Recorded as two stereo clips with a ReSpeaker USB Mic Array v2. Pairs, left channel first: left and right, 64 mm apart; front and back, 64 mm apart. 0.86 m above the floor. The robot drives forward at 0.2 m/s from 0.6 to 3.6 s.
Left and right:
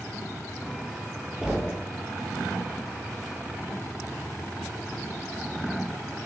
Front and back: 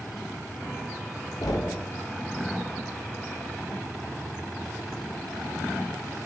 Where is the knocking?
10° right, 0.6 m.